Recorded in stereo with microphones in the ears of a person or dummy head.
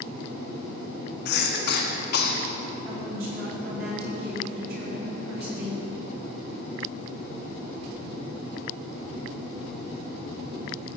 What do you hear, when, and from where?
1.2 s a cough: 60° left (ahead or behind), 1.3 m
2.9 s a woman speaking: 50° right (ahead or behind), 3 m